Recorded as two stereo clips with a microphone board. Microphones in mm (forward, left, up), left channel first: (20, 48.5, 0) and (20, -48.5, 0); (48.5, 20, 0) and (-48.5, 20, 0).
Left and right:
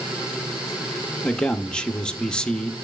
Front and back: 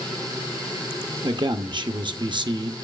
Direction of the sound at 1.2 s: 170° left.